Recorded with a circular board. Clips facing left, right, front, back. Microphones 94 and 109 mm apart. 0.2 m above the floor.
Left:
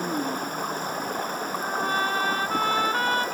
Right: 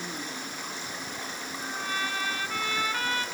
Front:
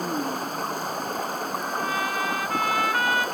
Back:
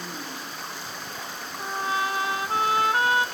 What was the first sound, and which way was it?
Running water, 45° left.